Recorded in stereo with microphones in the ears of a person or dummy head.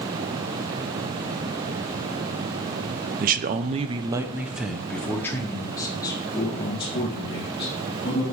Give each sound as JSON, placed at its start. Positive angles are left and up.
{"t": 3.2, "sound": "a man speaking", "side_deg": -45, "distance_m": 0.8}